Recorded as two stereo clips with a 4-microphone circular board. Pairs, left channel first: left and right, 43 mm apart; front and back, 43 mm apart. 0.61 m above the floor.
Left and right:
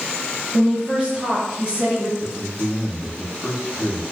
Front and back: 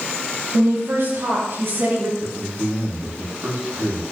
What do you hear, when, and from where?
0.5 s a woman speaking: 160° right, 7 m; by 2.1 s 155° right, 9 m
2.2 s a man speaking: 170° right, 4.5 m